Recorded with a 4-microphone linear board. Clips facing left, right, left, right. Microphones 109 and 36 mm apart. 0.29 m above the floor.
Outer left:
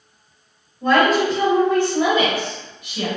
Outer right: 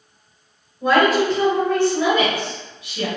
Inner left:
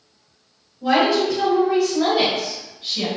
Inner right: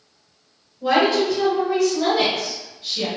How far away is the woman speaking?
About 0.9 m.